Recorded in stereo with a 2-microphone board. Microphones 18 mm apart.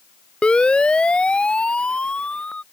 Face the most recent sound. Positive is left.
turn(degrees=65)  # may be behind; listen again after turning